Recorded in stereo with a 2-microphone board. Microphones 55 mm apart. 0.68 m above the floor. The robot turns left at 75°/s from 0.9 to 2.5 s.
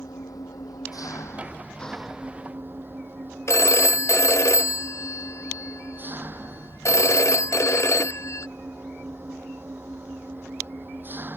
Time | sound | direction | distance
0.0 | an engine running | 85° left | ?
3.5 | a phone ringing | 55° left (ahead or behind) | ?